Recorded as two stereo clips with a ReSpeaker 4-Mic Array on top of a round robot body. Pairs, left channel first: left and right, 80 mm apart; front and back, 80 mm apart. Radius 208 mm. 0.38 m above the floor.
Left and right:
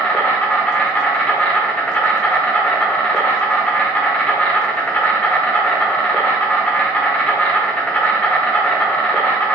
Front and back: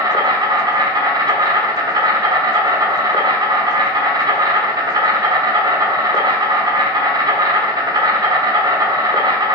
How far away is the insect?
About 1.3 m.